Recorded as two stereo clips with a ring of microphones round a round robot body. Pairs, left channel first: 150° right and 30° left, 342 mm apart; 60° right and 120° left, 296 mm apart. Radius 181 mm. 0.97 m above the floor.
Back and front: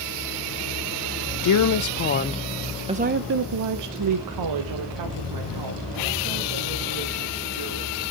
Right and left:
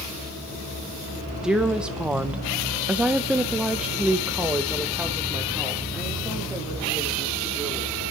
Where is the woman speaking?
155° right, 0.8 m; by 8.0 s 30° left, 3 m.